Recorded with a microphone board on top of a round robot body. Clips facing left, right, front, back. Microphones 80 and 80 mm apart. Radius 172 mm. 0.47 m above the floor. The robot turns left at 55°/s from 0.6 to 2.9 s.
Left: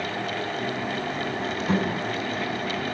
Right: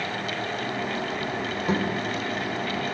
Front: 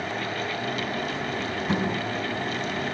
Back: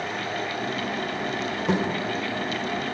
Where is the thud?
160° right, 4.5 m; by 1.8 s 165° right, 4.5 m.